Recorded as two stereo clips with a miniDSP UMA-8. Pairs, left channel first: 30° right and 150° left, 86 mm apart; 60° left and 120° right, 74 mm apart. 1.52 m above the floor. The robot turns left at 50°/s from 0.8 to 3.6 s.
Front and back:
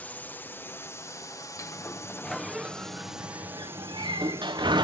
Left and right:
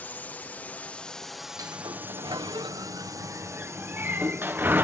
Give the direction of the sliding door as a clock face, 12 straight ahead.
3 o'clock.